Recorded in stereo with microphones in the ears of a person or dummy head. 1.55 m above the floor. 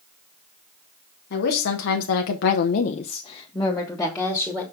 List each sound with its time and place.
1.3 s a woman speaking: 50° left (ahead or behind), 1.3 m; by 4.6 s centre (ahead or behind), 1.7 m